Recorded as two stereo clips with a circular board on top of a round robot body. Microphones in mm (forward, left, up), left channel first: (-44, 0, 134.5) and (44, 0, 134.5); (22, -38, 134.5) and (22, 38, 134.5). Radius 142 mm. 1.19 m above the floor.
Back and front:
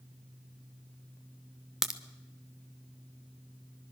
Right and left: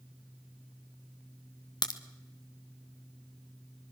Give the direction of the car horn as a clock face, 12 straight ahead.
I don't hear a car horn.